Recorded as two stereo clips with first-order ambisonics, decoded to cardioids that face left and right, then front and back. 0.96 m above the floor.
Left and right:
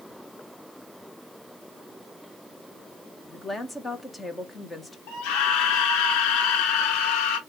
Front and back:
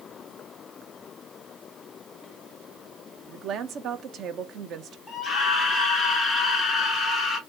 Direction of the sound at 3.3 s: 160° left.